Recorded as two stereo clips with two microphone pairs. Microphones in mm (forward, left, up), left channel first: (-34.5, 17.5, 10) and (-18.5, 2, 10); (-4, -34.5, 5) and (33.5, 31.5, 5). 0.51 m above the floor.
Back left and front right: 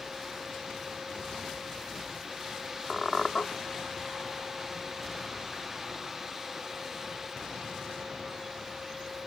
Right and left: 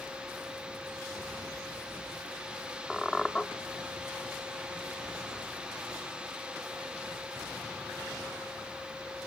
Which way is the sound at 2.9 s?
170° left.